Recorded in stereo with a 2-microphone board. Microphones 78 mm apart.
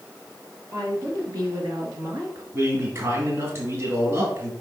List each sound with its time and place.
0.7 s a woman speaking: 50° right (ahead or behind), 2.5 m
2.5 s a man speaking: 35° right (ahead or behind), 2.5 m